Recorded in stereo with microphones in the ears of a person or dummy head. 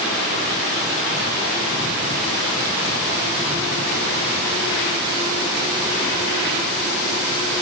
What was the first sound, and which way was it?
Only background noise.